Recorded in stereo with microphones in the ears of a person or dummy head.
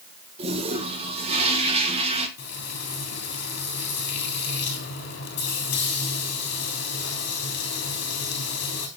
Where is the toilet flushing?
35° right (ahead or behind), 1.4 m.